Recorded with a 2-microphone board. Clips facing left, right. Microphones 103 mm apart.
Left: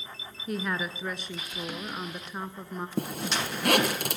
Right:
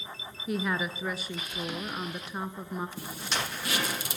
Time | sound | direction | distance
0.5 | a woman speaking | centre (ahead or behind) | 1.1 m
3.0 | a zipper | 70° left (ahead or behind) | 2 m